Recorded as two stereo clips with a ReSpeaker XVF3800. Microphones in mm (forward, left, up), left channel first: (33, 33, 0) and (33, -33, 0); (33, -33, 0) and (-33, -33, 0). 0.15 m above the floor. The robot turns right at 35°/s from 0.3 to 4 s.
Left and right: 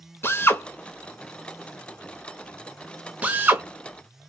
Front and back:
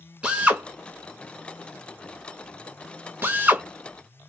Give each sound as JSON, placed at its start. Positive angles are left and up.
{"t": 0.2, "sound": "a drill", "azimuth_deg": 115, "distance_m": 0.6}